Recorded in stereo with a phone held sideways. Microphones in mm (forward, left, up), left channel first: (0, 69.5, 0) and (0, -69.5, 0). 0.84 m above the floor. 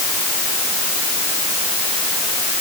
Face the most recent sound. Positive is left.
No sound to turn to.